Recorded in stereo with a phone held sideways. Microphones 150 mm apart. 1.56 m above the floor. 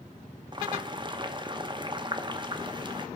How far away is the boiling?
About 0.8 m.